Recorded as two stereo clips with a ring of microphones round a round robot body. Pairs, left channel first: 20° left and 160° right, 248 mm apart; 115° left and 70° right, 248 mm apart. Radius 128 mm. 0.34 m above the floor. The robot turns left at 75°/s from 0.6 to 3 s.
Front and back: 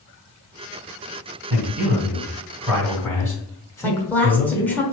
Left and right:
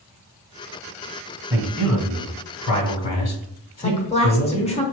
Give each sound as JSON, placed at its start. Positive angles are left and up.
{"t": 1.5, "sound": "a man speaking", "azimuth_deg": -145, "distance_m": 2.5}
{"t": 3.8, "sound": "a woman speaking", "azimuth_deg": 95, "distance_m": 1.0}